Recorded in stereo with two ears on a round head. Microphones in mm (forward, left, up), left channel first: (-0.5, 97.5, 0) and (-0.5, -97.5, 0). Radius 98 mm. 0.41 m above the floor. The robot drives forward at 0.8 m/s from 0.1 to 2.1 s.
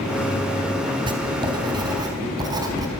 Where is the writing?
25° right (ahead or behind), 3.5 m; by 2.9 s 20° right (ahead or behind), 4.5 m.